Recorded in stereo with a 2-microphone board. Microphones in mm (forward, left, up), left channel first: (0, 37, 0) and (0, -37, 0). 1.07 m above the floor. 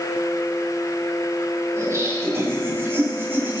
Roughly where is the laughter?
Right.